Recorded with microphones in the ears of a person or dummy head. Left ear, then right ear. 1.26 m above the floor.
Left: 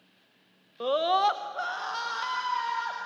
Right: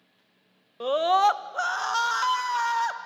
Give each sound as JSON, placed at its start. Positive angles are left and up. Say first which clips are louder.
{"t": 0.8, "sound": "a scream", "louder": "right 3 dB", "side_deg": -10, "distance_m": 0.6}